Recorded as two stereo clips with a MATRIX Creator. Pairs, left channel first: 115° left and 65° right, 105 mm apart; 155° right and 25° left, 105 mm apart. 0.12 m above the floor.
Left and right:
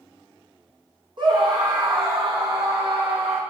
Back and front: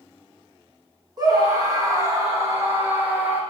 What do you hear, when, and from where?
1.2 s a scream: 25° right, 5.5 m; by 3.4 s 50° right, 5.5 m